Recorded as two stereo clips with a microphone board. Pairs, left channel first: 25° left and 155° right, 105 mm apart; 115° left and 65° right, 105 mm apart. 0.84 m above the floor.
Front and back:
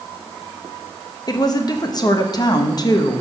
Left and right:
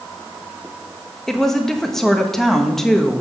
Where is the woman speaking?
30° left, 1.0 m.